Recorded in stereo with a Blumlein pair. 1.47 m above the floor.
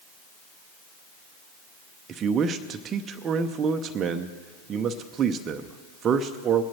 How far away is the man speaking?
About 0.8 m.